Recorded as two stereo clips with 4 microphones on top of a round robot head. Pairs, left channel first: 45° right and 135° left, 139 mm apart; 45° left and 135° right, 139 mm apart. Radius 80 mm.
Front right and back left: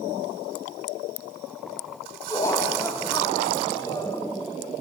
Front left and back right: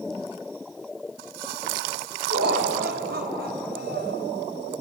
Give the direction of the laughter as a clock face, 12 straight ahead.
4 o'clock.